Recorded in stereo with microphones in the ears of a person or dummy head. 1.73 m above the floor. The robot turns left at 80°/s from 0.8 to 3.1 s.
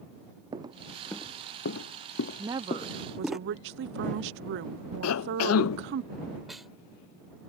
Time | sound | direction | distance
0.5 | footsteps | 15° right (ahead or behind) | ?
2.4 | a woman speaking | 20° right | ?
5.0 | a cough | 75° left (ahead or behind) | ?
6.5 | a snare drum | 5° right (ahead or behind) | ?